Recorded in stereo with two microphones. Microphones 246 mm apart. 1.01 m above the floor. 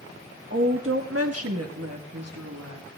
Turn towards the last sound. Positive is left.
turn(degrees=-80)